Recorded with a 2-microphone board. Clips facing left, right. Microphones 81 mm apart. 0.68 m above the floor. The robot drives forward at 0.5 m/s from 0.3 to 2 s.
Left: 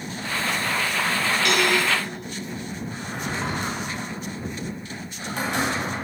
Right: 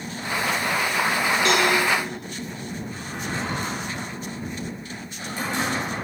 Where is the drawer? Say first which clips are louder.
Left 1 dB; 70° left (ahead or behind), 2.5 m.